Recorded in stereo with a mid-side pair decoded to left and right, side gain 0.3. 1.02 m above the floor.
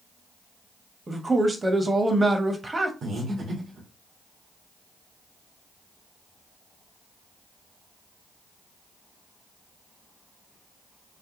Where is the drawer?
I don't hear a drawer.